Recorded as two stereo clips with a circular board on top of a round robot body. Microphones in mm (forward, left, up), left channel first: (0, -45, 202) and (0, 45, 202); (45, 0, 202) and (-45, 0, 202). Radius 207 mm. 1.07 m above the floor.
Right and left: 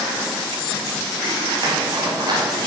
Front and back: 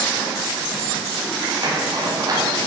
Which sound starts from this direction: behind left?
A zipper, at 1.6 s.